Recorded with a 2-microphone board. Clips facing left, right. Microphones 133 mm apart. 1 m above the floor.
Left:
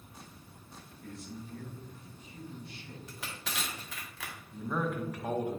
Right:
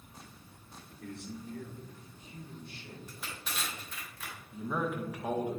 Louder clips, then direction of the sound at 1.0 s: Right 2 dB; 65° right (ahead or behind).